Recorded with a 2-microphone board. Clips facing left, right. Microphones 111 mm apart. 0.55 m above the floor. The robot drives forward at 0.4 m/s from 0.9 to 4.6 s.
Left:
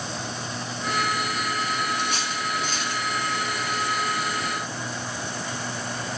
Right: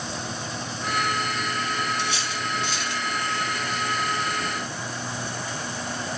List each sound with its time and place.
2.0 s cutlery clinking: 45° left (ahead or behind), 3 m; by 3.0 s 40° left (ahead or behind), 3 m